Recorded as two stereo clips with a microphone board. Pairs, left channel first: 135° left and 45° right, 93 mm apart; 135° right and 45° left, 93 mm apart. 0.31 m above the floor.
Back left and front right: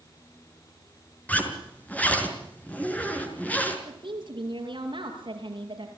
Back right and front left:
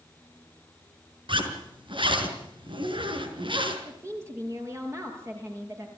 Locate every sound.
1.3 s a zipper: 65° left, 5 m
3.9 s a woman speaking: 15° right, 6.5 m